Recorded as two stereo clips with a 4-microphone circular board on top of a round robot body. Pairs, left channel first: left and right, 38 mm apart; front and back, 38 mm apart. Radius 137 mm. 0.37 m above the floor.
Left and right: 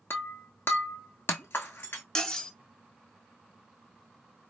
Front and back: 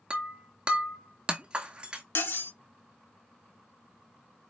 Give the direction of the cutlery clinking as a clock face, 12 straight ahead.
12 o'clock.